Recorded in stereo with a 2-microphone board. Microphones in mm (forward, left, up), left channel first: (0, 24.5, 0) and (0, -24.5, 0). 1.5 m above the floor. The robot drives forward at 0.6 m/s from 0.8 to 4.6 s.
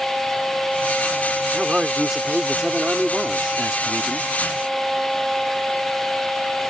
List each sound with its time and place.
1.5 s a man speaking: 10° right (ahead or behind)